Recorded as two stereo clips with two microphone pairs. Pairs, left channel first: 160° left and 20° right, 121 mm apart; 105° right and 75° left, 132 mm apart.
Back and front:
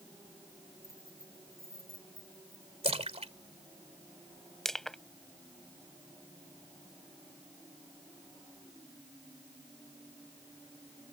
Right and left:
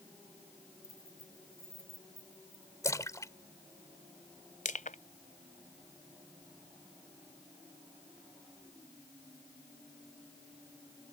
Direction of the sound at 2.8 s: 40° right.